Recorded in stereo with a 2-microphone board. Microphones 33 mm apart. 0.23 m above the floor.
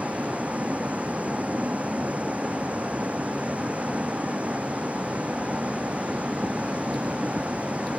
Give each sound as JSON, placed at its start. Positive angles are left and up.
{"t": 0.0, "sound": "a vehicle", "side_deg": -40}